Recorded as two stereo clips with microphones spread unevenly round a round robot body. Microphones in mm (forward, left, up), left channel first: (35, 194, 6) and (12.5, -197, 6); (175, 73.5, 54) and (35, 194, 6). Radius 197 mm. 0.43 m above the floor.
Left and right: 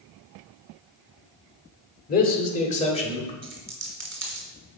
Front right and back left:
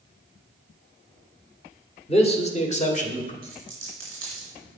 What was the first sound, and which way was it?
A man speaking, 25° left.